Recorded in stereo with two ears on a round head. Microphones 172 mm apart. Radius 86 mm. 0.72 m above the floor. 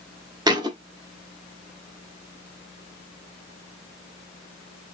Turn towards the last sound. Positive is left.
turn(degrees=-20)  # may be behind; listen again after turning